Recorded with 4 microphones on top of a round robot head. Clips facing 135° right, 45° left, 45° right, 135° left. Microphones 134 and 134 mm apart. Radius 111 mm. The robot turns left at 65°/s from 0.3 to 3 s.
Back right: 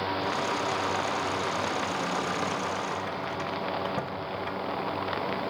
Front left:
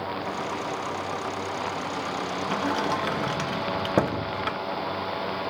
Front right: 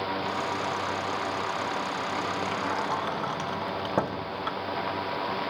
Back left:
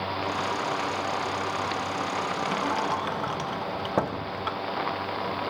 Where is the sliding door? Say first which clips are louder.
Front left 5 dB, back left 2 dB; 80° left; by 4.6 s 45° left.